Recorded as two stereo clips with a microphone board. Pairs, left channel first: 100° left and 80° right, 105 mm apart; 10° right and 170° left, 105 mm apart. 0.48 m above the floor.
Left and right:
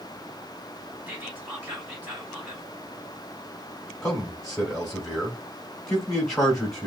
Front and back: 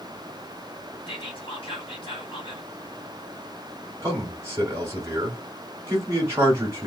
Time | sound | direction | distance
1.1 | whispering | 5° right | 2 m
4.0 | a man speaking | 170° right | 1.2 m